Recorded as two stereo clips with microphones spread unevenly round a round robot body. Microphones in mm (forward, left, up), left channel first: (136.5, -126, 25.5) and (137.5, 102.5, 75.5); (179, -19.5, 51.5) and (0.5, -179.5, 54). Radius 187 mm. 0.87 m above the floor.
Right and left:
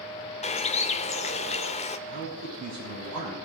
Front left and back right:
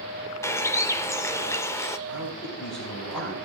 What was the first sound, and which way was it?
A bird, 30° right.